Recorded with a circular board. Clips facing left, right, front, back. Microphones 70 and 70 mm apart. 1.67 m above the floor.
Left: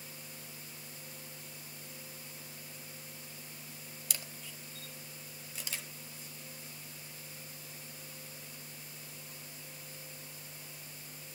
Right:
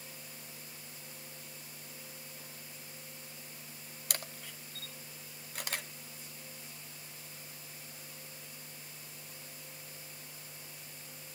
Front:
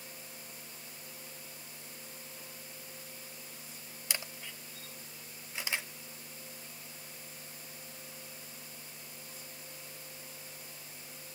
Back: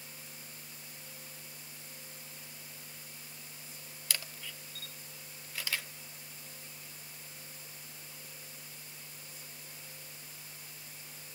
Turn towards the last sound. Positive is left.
turn(degrees=-65)